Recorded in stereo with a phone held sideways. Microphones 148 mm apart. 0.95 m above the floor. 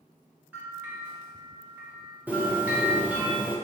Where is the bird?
10° right (ahead or behind), 0.5 m.